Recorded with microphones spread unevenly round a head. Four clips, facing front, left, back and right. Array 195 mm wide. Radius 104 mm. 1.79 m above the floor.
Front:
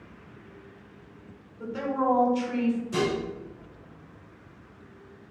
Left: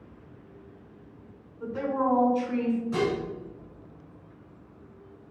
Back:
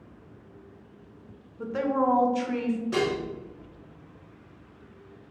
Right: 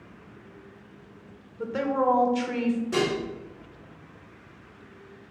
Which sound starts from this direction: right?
A woman speaking, at 1.6 s.